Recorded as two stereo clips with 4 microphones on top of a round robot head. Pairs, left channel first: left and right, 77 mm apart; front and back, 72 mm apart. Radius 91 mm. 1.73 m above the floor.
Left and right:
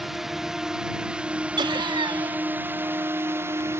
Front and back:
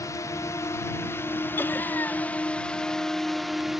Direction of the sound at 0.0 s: 5° right.